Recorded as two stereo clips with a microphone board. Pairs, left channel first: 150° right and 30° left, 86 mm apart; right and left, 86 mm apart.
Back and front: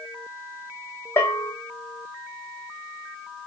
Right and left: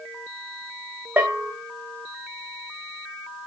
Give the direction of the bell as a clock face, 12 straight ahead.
7 o'clock.